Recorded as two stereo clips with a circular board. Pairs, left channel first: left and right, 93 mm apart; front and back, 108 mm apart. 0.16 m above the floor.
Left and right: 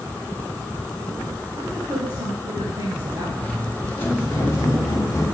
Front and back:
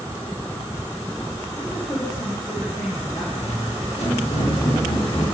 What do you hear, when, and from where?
1.5 s a woman speaking: 40° right, 5.5 m; by 3.2 s 45° right, 5 m
3.4 s footsteps: 15° left, 5 m; by 5.3 s 35° left, 7 m